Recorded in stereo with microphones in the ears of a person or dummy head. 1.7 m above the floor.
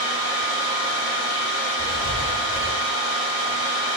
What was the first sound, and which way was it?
A fan, 85° left.